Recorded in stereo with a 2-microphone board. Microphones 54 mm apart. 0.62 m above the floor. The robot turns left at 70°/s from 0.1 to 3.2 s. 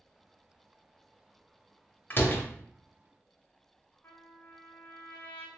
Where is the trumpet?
40° left (ahead or behind), 1.0 m.